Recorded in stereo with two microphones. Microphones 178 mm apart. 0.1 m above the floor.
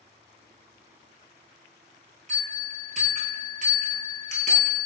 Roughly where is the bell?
Right.